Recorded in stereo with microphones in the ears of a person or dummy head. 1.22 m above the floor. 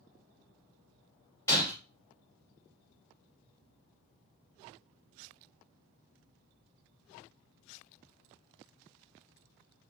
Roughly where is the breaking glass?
Centre.